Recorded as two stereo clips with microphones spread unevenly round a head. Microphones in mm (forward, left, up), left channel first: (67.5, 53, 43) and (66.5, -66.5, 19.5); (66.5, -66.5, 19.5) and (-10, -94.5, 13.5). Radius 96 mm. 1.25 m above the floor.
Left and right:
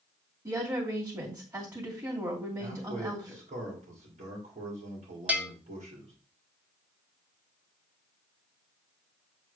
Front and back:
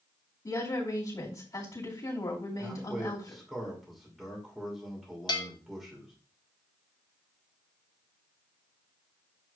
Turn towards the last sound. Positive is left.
turn(degrees=-10)